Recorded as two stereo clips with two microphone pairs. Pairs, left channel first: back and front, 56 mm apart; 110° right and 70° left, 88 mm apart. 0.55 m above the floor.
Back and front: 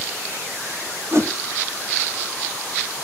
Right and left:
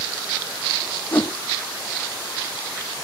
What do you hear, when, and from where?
1.1 s a whoosh: 35° right, 1.2 m